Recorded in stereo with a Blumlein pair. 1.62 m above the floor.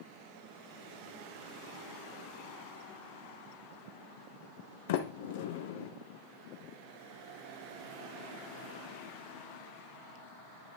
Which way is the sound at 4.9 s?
50° left.